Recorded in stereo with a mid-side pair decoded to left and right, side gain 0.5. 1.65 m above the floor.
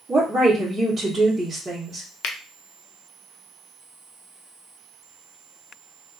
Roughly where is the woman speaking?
Ahead right.